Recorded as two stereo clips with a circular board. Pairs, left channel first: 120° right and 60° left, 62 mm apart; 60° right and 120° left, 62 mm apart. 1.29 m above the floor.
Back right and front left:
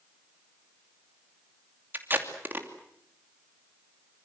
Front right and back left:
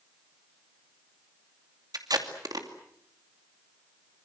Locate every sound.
1.9 s tape being pulled: 120° left, 2.5 m